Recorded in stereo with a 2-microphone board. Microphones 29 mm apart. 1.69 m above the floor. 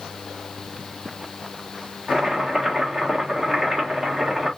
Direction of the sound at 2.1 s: 15° right (ahead or behind).